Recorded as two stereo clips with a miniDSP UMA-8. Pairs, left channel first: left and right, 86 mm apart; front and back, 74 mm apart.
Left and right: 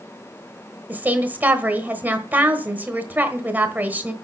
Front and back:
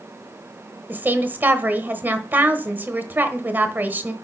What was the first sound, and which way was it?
A woman speaking, 140° right.